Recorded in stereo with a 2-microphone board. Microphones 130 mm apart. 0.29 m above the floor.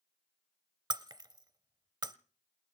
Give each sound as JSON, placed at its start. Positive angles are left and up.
{"t": 0.9, "sound": "breaking glass", "side_deg": -30, "distance_m": 0.7}